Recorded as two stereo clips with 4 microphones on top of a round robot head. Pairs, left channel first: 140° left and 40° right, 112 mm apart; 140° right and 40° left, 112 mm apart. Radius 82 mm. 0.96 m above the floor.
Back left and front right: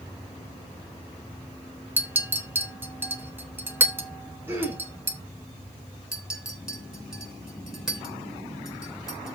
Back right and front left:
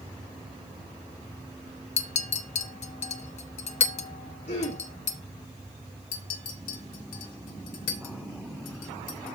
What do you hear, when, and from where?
2.0 s a clink: 115° right, 1.0 m
4.5 s throat clearing: 115° right, 3.5 m
6.1 s a clink: 125° right, 2.5 m